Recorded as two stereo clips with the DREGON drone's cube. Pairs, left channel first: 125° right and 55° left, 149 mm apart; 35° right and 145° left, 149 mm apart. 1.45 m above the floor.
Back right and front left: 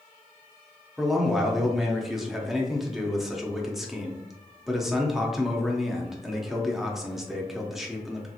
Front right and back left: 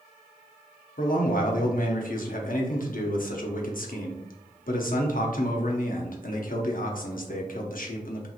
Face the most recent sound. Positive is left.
turn(degrees=-30)